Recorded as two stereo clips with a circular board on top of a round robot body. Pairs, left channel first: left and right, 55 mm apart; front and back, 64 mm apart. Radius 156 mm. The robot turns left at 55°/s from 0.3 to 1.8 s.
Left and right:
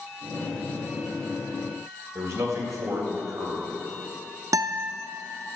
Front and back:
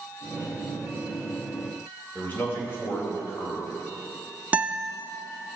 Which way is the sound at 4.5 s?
115° right.